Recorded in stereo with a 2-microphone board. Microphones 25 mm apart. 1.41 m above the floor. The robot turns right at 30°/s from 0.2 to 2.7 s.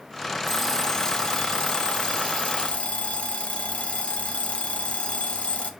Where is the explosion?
I don't hear an explosion.